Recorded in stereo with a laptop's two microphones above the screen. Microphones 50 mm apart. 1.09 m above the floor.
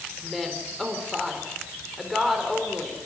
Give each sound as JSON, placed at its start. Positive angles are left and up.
{"t": 0.2, "sound": "a woman speaking", "side_deg": 0, "distance_m": 3.5}